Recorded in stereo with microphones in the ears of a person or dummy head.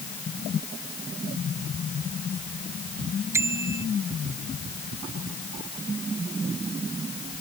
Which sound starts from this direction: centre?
A bicycle bell, at 3.3 s.